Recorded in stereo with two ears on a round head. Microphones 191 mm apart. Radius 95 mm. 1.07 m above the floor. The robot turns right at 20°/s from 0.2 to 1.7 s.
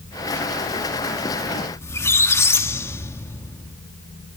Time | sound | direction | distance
1.8 | a squeak | 10° left (ahead or behind) | 1.2 m